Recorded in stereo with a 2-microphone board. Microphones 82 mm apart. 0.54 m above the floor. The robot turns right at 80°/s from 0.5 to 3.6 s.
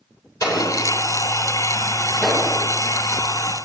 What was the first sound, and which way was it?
An explosion, 45° left (ahead or behind).